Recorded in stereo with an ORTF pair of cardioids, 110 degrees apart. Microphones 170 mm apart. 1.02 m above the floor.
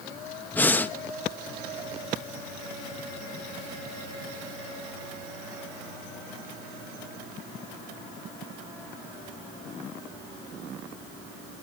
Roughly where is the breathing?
Ahead.